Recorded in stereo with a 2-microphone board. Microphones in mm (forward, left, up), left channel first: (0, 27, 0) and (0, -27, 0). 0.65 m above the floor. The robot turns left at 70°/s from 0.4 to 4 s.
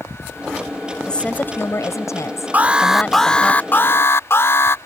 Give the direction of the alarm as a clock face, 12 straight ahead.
5 o'clock.